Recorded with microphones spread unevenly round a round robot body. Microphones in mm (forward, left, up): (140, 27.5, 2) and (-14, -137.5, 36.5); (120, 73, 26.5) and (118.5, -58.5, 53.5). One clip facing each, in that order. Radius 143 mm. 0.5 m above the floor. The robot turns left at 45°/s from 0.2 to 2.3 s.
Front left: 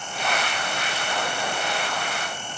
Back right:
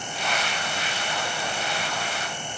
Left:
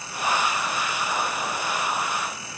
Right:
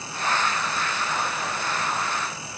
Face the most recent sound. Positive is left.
No sound to turn to.